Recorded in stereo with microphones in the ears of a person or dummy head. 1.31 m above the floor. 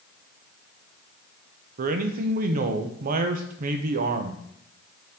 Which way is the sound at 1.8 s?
50° right (ahead or behind).